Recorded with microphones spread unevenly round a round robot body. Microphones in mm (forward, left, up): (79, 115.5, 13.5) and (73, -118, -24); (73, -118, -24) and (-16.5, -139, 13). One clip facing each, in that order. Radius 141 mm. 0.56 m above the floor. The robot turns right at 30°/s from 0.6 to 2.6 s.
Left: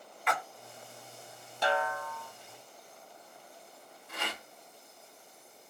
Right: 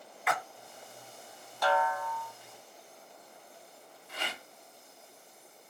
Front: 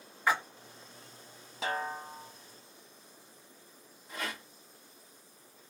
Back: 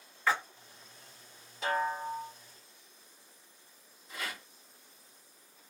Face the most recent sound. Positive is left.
turn(degrees=60)